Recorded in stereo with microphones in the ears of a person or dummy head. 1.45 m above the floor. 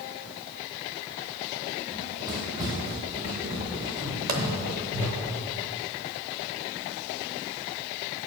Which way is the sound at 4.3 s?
45° right (ahead or behind).